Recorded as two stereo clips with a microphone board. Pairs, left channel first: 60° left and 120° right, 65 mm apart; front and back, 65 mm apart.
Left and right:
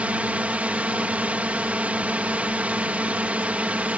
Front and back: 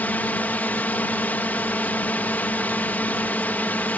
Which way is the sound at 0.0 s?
55° right.